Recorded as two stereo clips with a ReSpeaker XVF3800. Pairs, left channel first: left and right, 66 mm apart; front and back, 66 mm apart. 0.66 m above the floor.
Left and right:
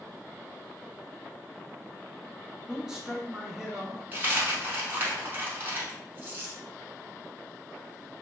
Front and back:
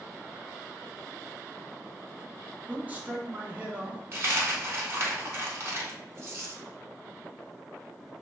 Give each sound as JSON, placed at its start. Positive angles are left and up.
{"t": 2.7, "sound": "a man speaking", "azimuth_deg": -155, "distance_m": 0.5}
{"t": 4.1, "sound": "a dropped coin", "azimuth_deg": -140, "distance_m": 0.8}